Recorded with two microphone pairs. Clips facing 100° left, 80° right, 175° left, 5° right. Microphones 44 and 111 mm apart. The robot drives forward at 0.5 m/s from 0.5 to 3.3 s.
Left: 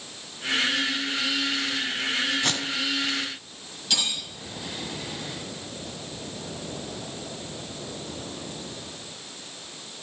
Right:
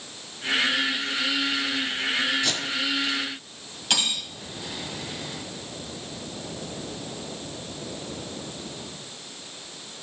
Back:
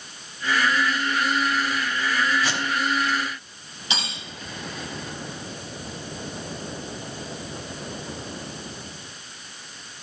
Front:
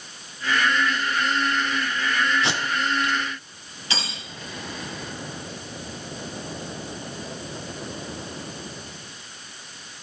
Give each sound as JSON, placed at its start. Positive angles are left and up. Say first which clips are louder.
{"t": 2.4, "sound": "tape being pulled", "louder": "even, even", "azimuth_deg": 60, "distance_m": 1.6}
{"t": 3.9, "sound": "cutlery clinking", "louder": "right 2 dB, back 1 dB", "azimuth_deg": -115, "distance_m": 2.0}